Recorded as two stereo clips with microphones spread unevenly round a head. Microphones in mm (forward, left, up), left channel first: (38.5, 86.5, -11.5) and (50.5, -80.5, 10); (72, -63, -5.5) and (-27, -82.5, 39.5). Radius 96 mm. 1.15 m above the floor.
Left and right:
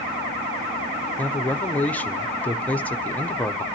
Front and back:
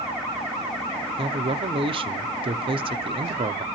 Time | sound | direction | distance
1.2 | a man speaking | 150° left | 0.6 m